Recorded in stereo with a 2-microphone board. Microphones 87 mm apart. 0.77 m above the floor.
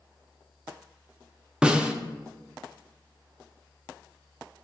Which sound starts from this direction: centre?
A snare drum, at 1.6 s.